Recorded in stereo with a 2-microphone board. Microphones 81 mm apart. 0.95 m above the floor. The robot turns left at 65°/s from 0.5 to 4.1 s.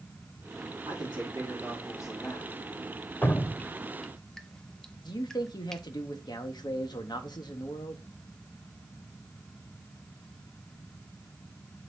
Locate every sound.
0.9 s a man speaking: 105° right, 2 m; by 2.5 s 150° left, 2 m
3.2 s dripping: 20° left (ahead or behind), 0.7 m; by 5.8 s 10° left (ahead or behind), 0.7 m
5.0 s a man speaking: 60° left (ahead or behind), 1.1 m